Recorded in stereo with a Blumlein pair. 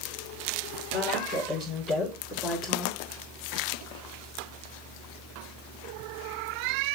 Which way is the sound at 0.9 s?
45° left.